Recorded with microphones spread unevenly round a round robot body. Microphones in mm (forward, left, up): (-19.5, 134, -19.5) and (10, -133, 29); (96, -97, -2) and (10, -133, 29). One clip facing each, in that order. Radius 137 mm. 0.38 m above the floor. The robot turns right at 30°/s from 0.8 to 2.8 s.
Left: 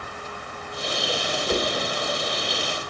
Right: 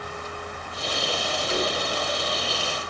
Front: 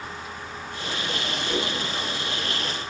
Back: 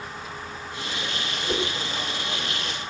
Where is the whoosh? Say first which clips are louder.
Left 2 dB, back 1 dB; 125° left, 2.5 m; by 1.7 s 130° left, 2.5 m.